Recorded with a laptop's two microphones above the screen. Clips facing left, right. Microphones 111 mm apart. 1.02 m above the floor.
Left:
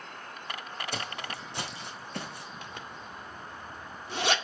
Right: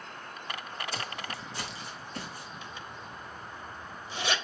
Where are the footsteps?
70° left (ahead or behind), 3.5 m; by 2.5 s 75° left (ahead or behind), 5 m.